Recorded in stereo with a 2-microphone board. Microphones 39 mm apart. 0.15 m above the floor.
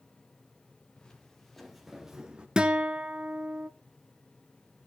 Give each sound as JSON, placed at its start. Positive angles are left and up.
{"t": 1.0, "sound": "footsteps", "side_deg": 15, "distance_m": 3.0}
{"t": 2.6, "sound": "a guitar", "side_deg": -20, "distance_m": 0.6}